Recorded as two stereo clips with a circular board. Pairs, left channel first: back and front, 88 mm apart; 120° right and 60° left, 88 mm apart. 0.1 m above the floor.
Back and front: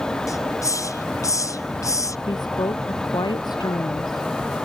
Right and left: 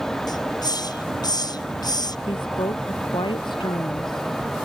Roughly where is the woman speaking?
Behind right.